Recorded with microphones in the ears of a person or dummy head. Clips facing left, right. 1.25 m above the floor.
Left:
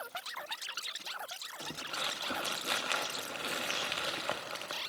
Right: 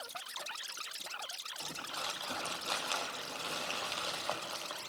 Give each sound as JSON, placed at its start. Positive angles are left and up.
{"t": 1.6, "sound": "crumpling", "side_deg": 30, "distance_m": 1.5}